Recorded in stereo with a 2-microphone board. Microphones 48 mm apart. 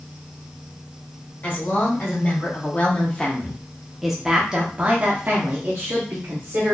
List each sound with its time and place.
1.4 s a woman speaking: 40° left (ahead or behind), 1.8 m; by 6.8 s 60° right (ahead or behind), 1.4 m